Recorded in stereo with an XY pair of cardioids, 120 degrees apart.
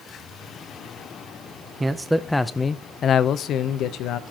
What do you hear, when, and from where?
1.8 s a man speaking: 20° right, 0.7 m; by 4.2 s 75° left, 1.1 m